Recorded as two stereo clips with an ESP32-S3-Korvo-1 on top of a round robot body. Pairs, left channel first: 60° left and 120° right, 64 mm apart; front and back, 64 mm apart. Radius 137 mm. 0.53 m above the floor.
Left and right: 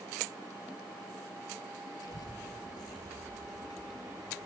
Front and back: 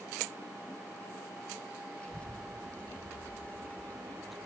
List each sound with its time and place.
2.0 s a child speaking: 80° left, 7 m; by 4.5 s 55° left, 5 m